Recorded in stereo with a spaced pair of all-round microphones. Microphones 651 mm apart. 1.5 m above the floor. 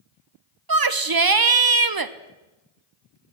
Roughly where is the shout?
Right.